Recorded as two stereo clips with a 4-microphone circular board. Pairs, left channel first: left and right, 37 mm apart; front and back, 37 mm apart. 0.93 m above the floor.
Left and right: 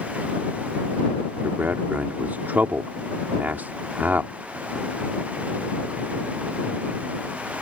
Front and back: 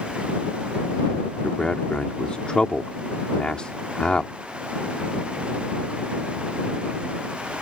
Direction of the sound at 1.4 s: 60° right.